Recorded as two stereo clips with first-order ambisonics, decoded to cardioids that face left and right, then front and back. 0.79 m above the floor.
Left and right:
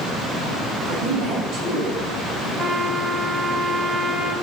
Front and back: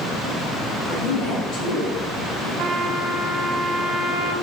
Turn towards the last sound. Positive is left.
turn(degrees=-155)